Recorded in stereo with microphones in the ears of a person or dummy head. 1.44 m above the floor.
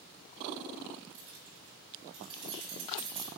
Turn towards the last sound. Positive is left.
turn(degrees=-25)  # may be behind; listen again after turning